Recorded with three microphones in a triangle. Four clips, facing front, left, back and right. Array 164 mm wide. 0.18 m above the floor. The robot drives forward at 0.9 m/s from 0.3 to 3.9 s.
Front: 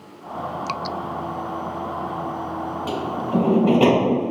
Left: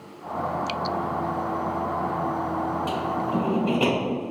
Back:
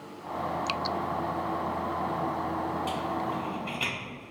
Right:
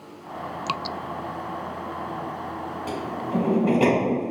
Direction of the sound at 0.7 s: 55° right.